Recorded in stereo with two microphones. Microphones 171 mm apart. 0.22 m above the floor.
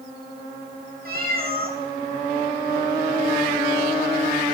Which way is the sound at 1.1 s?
60° right (ahead or behind).